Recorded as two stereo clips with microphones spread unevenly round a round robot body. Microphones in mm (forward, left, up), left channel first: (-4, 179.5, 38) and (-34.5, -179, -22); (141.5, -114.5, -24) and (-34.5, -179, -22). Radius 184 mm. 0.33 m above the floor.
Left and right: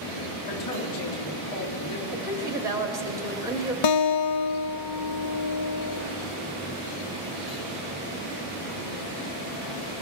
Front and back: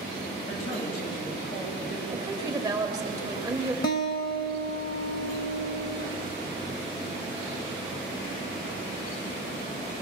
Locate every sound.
0.5 s a man speaking: 40° left, 3 m
2.1 s a woman speaking: 135° right, 1.4 m
3.8 s a guitar: 55° left, 0.6 m